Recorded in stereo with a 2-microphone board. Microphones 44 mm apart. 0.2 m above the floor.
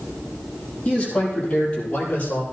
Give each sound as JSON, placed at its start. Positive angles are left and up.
{"t": 0.8, "sound": "a man speaking", "side_deg": 20, "distance_m": 6.5}